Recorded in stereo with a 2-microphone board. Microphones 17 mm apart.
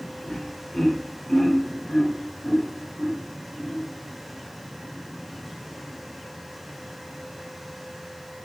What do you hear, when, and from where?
0.2 s laughter: 60° left (ahead or behind), 1.5 m; by 3.8 s 45° left (ahead or behind), 3 m